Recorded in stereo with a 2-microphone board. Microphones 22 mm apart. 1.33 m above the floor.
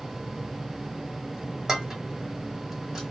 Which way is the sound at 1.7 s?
20° right (ahead or behind).